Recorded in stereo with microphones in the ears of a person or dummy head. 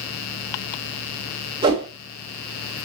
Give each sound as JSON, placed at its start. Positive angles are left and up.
{"t": 1.6, "sound": "a whoosh", "side_deg": -20, "distance_m": 3.0}